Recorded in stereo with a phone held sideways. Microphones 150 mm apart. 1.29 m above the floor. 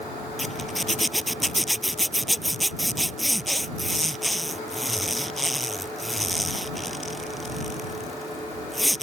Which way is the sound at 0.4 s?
Centre (ahead or behind).